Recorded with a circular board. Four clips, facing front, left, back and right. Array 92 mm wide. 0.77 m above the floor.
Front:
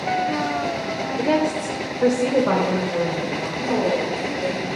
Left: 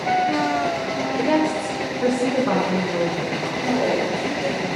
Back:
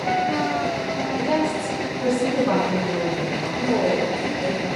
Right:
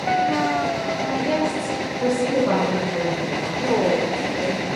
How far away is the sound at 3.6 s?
About 2 m.